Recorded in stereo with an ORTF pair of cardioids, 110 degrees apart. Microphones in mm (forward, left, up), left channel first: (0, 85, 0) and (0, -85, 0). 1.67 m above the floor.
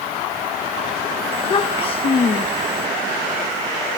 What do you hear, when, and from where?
1.3 s a child speaking: 35° left